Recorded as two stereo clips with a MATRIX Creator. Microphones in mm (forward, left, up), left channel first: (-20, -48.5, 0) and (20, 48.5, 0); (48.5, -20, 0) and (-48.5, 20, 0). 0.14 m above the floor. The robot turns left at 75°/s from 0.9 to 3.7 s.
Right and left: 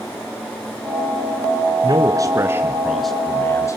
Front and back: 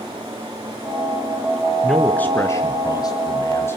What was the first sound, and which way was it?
A man speaking, 70° left.